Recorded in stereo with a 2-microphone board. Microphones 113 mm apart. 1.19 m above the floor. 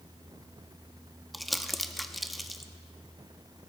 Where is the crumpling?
Centre (ahead or behind), 0.6 m.